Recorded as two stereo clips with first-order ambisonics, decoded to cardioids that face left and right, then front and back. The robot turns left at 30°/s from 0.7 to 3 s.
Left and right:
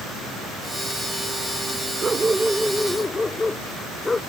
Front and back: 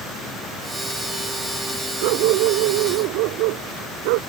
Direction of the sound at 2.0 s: 160° right.